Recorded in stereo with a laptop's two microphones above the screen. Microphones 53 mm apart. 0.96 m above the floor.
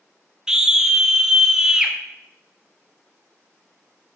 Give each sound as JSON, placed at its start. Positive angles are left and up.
{"t": 0.5, "sound": "a scream", "side_deg": -15, "distance_m": 0.5}